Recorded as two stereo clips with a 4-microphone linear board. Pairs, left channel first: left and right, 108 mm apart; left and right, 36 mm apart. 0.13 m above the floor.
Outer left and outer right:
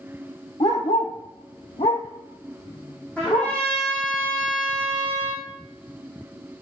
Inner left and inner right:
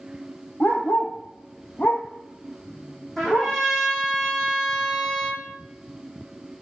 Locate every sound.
0.6 s a dog barking: 65° left (ahead or behind), 1.4 m; by 3.6 s 50° left (ahead or behind), 2 m
3.2 s a trumpet: 10° left (ahead or behind), 3 m